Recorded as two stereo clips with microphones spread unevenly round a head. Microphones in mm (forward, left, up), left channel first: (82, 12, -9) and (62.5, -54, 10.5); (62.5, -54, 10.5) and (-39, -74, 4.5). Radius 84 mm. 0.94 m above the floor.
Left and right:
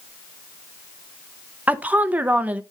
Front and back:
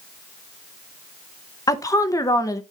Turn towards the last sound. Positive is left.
turn(degrees=-30)